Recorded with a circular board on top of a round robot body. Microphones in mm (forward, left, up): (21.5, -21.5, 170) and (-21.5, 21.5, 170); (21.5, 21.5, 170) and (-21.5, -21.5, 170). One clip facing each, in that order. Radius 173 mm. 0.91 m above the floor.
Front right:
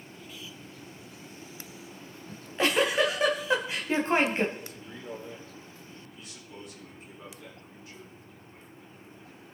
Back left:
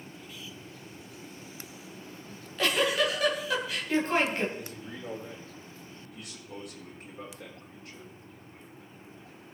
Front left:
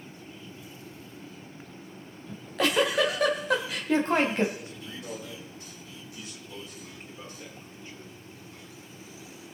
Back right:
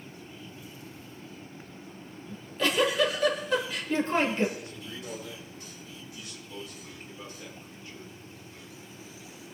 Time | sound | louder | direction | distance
2.3 | a giggle | front right 3 dB, front left 2 dB | 20° left | 2.5 m
4.5 | a man speaking | back left 2 dB, even | 110° left | 6.5 m